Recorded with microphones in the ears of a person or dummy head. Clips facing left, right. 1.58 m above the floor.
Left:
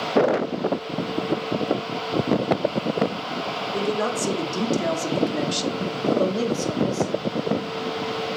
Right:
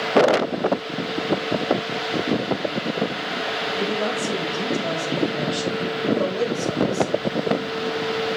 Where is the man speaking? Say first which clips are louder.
Left 1 dB; 70° left (ahead or behind), 4 m; by 7.3 s 20° left (ahead or behind), 3 m.